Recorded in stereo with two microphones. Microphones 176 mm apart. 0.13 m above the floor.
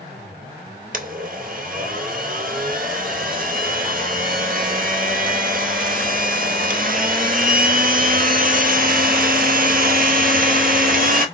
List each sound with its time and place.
0.9 s a blender: 55° right (ahead or behind), 0.7 m